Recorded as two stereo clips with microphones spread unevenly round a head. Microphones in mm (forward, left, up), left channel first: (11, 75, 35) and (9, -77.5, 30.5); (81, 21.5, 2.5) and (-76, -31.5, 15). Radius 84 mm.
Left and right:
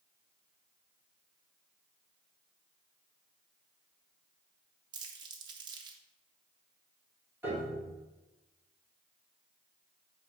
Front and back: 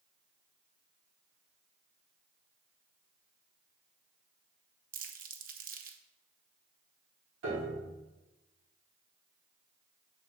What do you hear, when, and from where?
4.9 s crumpling: 150° right, 1.0 m
7.4 s a piano: 170° right, 3 m